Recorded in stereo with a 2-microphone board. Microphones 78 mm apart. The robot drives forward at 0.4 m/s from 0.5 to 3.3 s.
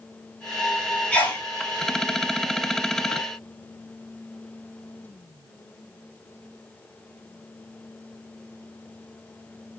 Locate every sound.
1.1 s a sneeze: 20° left (ahead or behind), 1.2 m